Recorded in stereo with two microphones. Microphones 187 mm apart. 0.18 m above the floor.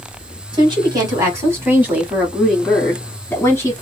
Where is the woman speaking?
25° right (ahead or behind), 1.5 m; by 3.8 s 15° left (ahead or behind), 1.7 m.